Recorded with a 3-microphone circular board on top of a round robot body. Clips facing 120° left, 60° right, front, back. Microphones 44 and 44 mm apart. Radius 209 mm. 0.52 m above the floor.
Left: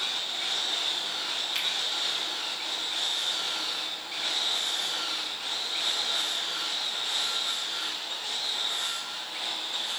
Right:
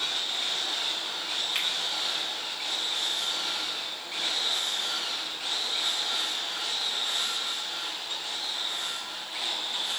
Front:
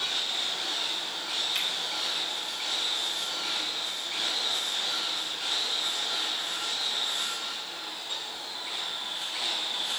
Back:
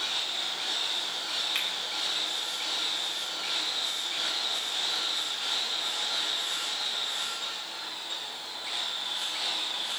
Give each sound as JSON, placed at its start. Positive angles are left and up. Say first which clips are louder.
{"t": 1.6, "sound": "a finger snap", "louder": "right 1 dB, even", "azimuth_deg": -135, "distance_m": 1.9}